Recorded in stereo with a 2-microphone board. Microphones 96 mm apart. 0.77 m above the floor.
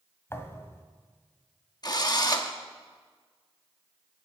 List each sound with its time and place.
0.3 s a thud: 25° left (ahead or behind), 1.4 m
1.8 s a drill: 45° left (ahead or behind), 1.1 m